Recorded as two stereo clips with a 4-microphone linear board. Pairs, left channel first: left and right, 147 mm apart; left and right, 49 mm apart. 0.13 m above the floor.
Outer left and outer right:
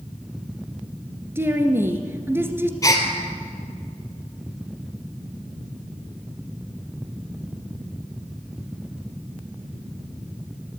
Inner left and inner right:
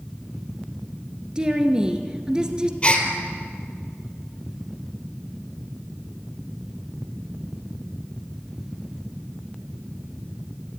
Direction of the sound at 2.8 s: 25° left (ahead or behind).